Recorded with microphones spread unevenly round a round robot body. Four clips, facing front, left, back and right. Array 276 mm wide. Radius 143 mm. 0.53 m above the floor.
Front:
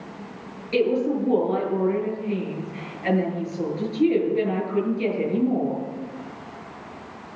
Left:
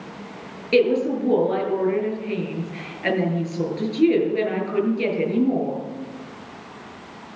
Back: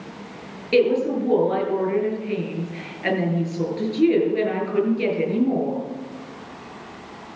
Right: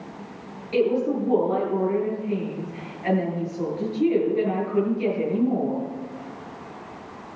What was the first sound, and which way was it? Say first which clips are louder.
A woman speaking: left 3 dB, back 3 dB; 125° left.